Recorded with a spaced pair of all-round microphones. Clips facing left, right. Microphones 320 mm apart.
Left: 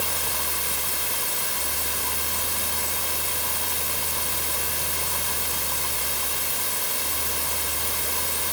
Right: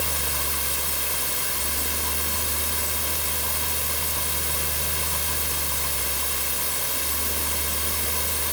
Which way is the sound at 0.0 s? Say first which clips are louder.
Even; 25° right (ahead or behind).